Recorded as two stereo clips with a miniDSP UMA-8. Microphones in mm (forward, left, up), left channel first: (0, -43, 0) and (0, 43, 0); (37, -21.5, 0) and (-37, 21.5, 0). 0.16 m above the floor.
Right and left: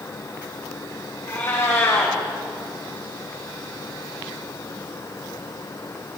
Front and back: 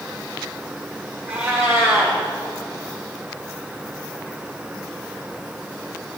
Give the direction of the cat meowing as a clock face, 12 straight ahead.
5 o'clock.